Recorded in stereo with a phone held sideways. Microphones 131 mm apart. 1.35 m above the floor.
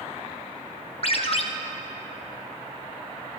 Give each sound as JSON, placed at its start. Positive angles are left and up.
{"t": 1.0, "sound": "a ringtone", "side_deg": 50, "distance_m": 0.6}